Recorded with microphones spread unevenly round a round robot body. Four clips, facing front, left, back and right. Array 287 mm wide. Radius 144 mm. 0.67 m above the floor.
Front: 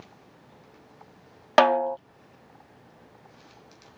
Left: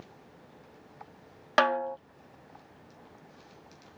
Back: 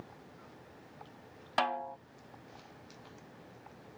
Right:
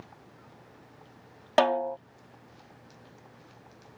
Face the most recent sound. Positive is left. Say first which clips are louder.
# right 2 dB, front 14 dB
turn(degrees=-20)